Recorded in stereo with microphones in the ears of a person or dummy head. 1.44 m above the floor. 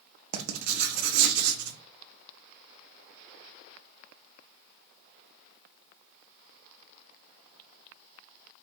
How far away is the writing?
About 0.5 m.